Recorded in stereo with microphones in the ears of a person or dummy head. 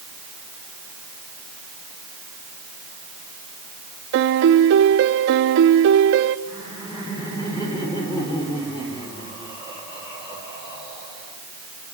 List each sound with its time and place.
4.1 s a piano: 65° right (ahead or behind), 0.5 m
6.5 s laughter: 25° left (ahead or behind), 6 m